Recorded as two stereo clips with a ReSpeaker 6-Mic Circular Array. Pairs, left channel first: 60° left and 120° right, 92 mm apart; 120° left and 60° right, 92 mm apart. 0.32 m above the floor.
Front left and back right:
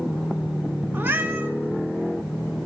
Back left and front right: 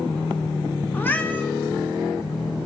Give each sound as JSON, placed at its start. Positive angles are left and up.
{"t": 0.9, "sound": "a cat meowing", "azimuth_deg": 180, "distance_m": 0.6}